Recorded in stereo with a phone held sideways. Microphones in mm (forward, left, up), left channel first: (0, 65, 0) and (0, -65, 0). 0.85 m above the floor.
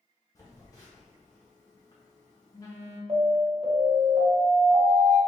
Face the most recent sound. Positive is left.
turn(degrees=-50)  # may be behind; listen again after turning